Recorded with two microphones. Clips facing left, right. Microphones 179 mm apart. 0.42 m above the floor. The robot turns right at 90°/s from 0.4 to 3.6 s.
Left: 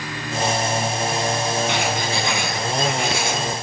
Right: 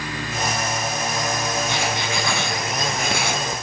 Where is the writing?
105° left, 4.5 m; by 3.4 s 105° right, 4.5 m.